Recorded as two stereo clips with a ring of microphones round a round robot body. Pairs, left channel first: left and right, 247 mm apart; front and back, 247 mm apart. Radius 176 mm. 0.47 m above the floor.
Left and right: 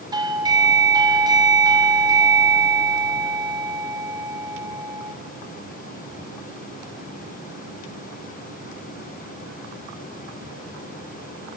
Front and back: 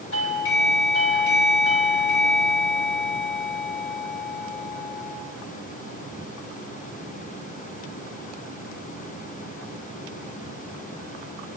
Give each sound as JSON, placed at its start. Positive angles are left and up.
{"t": 0.1, "sound": "a doorbell", "azimuth_deg": -20, "distance_m": 3.0}